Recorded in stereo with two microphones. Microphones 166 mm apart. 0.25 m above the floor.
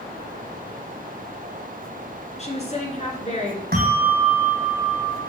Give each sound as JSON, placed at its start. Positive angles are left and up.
{"t": 2.4, "sound": "a woman speaking", "side_deg": 40, "distance_m": 3.0}
{"t": 3.7, "sound": "a bell", "side_deg": -60, "distance_m": 3.0}